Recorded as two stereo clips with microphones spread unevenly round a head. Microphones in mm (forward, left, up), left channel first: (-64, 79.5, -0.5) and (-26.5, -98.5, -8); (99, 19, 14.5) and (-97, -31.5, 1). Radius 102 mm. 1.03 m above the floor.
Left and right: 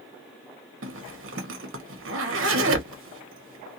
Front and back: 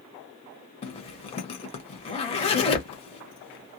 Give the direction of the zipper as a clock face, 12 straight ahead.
2 o'clock.